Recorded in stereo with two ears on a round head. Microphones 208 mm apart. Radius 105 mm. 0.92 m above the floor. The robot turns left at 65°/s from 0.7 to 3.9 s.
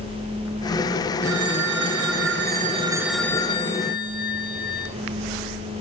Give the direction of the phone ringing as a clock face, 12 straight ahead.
2 o'clock.